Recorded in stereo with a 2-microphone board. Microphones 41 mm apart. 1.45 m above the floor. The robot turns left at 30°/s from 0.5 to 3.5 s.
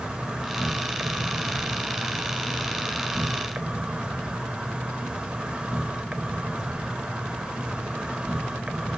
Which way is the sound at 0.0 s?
35° right.